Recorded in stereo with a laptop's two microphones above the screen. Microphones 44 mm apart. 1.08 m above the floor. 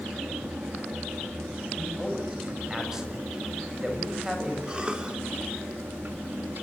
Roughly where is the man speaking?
Centre.